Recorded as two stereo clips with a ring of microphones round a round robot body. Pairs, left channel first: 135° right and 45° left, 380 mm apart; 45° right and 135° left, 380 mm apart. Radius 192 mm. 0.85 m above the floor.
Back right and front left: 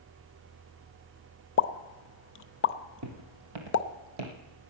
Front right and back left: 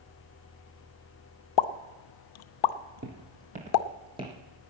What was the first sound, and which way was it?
A pop, 75° right.